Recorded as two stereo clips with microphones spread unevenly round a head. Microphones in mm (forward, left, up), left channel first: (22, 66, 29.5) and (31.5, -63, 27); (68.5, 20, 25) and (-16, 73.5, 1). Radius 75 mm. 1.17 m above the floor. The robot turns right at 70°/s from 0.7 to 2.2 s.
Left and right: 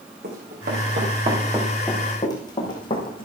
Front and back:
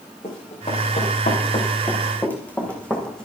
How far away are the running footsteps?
About 5.5 m.